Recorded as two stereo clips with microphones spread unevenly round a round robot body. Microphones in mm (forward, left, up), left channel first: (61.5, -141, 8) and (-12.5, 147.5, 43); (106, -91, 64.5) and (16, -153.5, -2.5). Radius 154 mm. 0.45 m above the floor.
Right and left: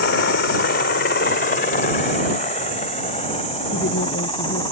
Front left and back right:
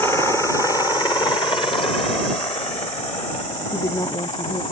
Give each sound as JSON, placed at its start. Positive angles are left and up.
{"t": 0.0, "sound": "a helicopter", "azimuth_deg": -70}
{"t": 3.7, "sound": "a woman speaking", "azimuth_deg": -20}